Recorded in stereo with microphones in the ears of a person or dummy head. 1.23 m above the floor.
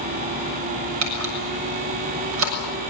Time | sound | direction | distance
1.0 | a camera shutter | 75° right (ahead or behind) | 6.5 m